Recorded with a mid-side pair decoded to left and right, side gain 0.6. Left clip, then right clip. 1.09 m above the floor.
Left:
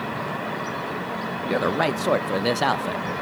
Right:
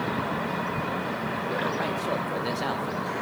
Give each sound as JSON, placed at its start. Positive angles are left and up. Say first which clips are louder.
{"t": 1.4, "sound": "a man speaking", "louder": "left 7 dB", "azimuth_deg": 45, "distance_m": 0.6}